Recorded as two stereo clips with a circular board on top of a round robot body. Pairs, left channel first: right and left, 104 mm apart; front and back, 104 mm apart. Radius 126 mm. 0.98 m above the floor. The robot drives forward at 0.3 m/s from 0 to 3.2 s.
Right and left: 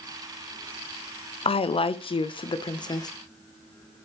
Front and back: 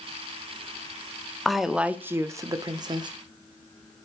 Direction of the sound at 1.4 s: 85° right.